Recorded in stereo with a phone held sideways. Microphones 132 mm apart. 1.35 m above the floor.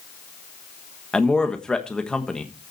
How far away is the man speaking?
About 1.4 m.